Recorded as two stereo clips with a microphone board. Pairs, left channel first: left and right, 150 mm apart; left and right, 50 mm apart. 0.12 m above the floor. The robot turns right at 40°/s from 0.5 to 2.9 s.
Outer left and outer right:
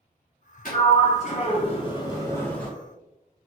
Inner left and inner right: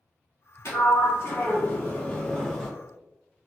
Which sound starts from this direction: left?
A sliding door, at 0.7 s.